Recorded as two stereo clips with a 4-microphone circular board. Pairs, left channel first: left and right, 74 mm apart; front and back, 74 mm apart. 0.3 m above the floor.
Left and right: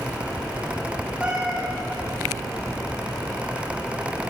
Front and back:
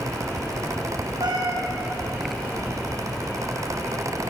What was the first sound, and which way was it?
A cat meowing, 165° right.